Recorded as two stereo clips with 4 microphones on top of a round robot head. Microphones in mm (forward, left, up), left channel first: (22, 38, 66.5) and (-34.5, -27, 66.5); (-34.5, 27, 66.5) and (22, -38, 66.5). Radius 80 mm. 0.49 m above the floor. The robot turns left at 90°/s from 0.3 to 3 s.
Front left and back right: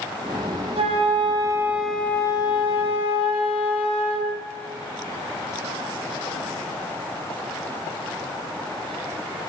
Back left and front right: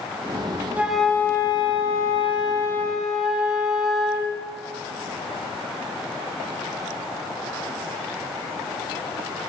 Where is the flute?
120° right, 1.7 m; by 4.3 s 35° left, 1.7 m.